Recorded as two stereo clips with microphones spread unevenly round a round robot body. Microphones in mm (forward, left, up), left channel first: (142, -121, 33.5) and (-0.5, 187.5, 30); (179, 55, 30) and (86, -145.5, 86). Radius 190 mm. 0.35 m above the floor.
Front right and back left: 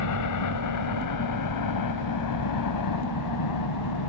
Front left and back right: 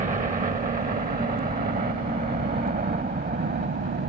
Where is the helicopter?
55° right; by 4.1 s 70° right.